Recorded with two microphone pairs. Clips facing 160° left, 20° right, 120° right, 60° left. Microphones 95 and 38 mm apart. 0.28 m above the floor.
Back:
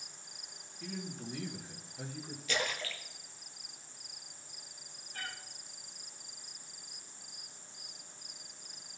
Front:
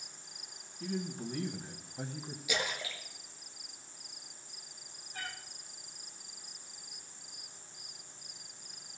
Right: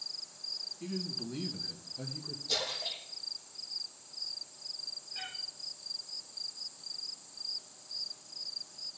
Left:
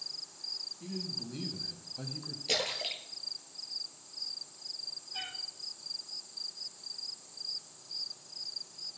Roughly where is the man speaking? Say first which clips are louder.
Front 5 dB, right 3 dB; ahead right.